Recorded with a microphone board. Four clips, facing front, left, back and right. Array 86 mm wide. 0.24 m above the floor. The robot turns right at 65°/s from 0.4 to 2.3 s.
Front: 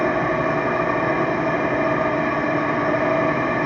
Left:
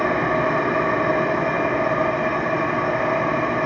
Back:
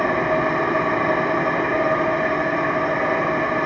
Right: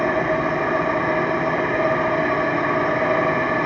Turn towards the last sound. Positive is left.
turn(degrees=-95)